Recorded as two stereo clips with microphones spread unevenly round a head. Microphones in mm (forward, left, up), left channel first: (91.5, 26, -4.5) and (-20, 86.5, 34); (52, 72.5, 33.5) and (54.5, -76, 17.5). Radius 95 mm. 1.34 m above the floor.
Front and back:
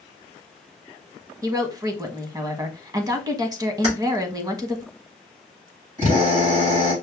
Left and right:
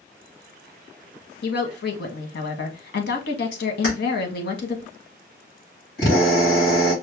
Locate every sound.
1.4 s a woman speaking: 95° left, 1.2 m
3.8 s keys jangling: 125° left, 3 m
6.0 s a drill: 135° left, 3.5 m